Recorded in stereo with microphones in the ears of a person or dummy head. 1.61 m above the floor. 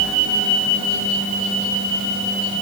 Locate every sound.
Only background noise.